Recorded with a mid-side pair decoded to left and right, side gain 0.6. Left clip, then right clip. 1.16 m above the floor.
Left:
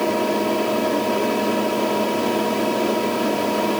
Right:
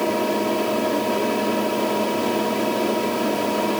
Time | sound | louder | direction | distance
0.0 | a fan | left 1 dB | 5° left | ?